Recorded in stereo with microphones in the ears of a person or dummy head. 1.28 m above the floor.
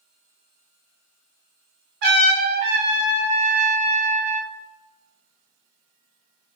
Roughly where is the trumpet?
Right.